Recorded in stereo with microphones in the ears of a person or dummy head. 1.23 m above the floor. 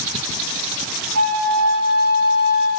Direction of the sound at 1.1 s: 80° right.